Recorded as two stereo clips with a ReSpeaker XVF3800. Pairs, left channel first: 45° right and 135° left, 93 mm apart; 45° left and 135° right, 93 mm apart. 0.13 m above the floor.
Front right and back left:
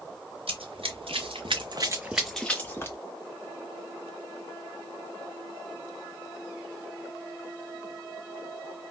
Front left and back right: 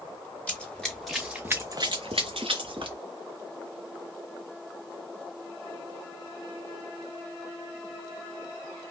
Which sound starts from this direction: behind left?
Running footsteps, at 0.5 s.